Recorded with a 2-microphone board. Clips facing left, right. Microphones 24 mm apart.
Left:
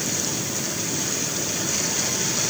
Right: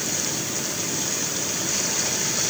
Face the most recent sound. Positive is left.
No sound to turn to.